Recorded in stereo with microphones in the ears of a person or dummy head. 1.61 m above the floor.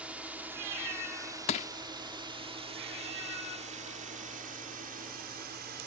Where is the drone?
5° right (ahead or behind); by 5.9 s 50° right (ahead or behind).